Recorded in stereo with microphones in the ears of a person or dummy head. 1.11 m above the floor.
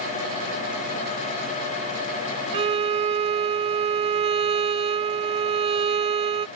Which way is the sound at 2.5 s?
35° right (ahead or behind).